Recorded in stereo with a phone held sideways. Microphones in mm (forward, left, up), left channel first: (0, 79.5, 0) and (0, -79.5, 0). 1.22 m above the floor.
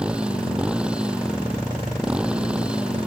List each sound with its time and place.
0.0 s a motorcycle: 5° right (ahead or behind)